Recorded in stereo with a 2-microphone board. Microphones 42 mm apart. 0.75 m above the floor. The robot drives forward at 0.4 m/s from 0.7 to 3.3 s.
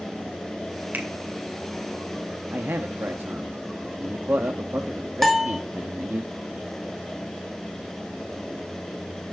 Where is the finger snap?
45° right (ahead or behind), 2 m; by 1.1 s 50° right (ahead or behind), 2 m.